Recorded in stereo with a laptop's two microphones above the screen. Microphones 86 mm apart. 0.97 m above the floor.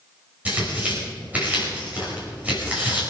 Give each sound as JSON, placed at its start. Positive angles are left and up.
{"t": 0.5, "sound": "tearing paper", "side_deg": -15, "distance_m": 5.0}